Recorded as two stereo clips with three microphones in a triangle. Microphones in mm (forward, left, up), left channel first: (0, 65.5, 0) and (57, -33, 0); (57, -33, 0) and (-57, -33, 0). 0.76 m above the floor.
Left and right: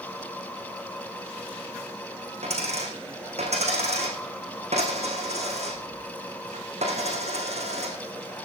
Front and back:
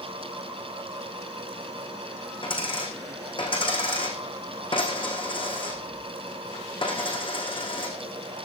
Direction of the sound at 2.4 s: 45° right.